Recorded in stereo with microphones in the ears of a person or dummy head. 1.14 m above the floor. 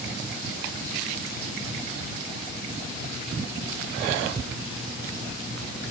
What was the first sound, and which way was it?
Only background noise.